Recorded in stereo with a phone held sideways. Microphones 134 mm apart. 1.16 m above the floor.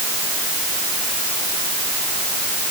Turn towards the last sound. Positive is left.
No sound to turn to.